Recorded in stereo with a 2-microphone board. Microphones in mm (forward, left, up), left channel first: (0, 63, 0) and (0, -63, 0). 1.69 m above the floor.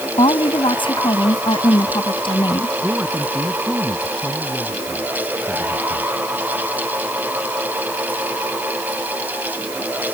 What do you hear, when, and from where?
0.2 s a woman speaking: 45° left (ahead or behind); by 2.7 s 40° left (ahead or behind)
2.8 s a man speaking: 10° right (ahead or behind)